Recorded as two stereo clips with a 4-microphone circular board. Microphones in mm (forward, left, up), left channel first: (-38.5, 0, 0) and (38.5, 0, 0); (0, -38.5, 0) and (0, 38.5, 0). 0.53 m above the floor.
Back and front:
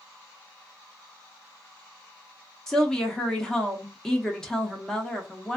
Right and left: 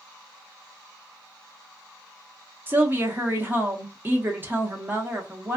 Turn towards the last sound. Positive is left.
turn(degrees=105)